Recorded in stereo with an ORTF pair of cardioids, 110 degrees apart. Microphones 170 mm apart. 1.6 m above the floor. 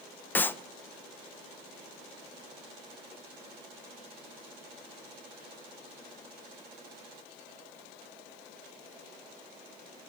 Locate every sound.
0.3 s a clap: 10° left, 1.3 m